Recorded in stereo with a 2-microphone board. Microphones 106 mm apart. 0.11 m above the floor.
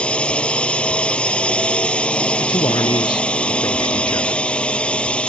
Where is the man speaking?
45° left (ahead or behind).